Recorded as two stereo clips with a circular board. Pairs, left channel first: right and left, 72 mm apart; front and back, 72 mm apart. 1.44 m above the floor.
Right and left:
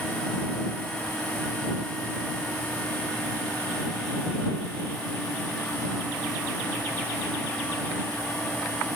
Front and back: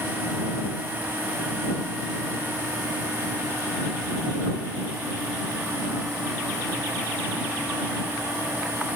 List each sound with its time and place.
Only background noise.